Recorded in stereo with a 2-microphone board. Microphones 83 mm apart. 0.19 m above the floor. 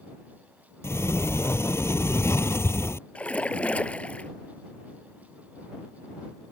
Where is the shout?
I don't hear a shout.